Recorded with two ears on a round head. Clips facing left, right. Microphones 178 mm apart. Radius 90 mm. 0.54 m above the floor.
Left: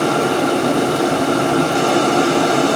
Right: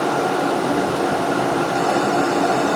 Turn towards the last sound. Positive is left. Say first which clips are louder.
# left 3 dB
turn(degrees=75)  # may be behind; listen again after turning